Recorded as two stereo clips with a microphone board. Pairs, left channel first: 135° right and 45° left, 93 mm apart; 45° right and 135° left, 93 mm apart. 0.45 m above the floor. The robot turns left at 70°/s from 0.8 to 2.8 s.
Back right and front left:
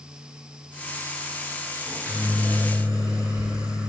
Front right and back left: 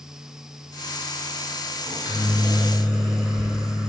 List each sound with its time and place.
1.9 s a microwave: 105° left, 1.2 m; by 3.9 s 40° left, 1.2 m